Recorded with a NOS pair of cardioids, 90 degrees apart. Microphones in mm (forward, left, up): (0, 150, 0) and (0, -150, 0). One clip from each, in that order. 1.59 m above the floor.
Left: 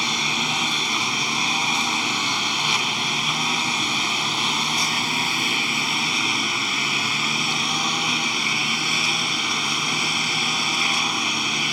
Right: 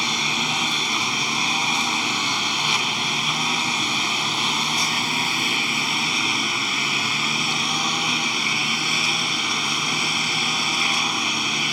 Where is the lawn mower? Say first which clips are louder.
Even; straight ahead.